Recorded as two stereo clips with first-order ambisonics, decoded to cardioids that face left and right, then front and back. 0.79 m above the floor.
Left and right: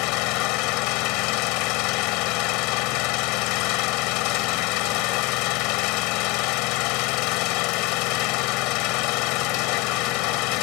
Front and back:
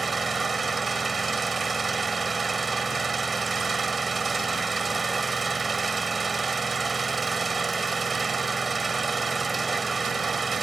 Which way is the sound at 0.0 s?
105° left.